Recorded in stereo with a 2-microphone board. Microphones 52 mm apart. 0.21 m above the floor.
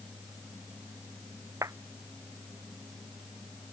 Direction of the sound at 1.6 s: 85° right.